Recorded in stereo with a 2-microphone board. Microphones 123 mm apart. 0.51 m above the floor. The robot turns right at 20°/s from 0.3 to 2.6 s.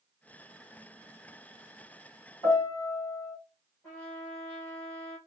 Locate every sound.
2.4 s a piano: 20° left (ahead or behind), 3.5 m
3.8 s a trumpet: 15° left (ahead or behind), 3.5 m